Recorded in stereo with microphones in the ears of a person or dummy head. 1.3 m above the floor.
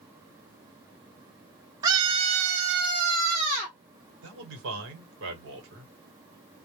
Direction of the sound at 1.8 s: 15° right (ahead or behind).